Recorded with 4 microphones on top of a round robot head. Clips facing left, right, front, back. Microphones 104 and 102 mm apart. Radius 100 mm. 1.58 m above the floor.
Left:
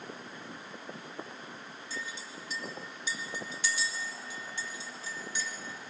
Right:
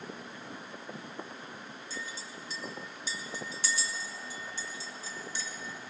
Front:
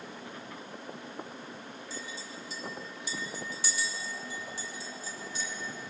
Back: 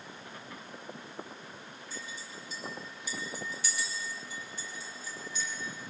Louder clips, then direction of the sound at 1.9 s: Left 2 dB, front 1 dB; 35° right.